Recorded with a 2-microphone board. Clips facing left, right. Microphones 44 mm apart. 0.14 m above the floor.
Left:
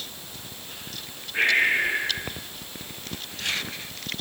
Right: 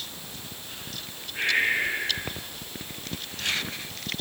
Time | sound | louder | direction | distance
1.3 | breathing | left 3 dB | 40° left (ahead or behind) | 5 m